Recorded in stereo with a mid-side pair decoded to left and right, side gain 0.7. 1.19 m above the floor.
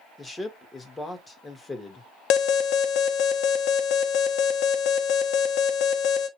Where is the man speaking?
15° left, 1.7 m.